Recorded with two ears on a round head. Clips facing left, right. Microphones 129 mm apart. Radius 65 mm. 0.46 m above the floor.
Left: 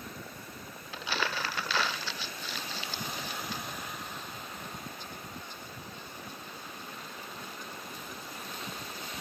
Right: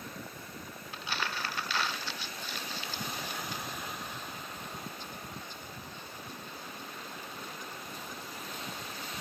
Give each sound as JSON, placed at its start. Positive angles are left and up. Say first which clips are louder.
{"t": 0.9, "sound": "crumpling", "louder": "left 3 dB", "side_deg": 55, "distance_m": 0.5}